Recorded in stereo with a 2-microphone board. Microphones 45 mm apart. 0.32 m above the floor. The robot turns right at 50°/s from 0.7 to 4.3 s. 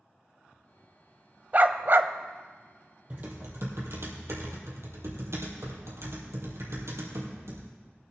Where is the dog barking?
40° right (ahead or behind), 0.5 m; by 2.1 s 60° right (ahead or behind), 0.5 m.